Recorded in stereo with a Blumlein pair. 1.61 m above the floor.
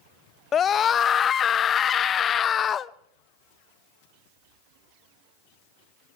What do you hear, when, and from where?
0.5 s a scream: 25° left, 0.6 m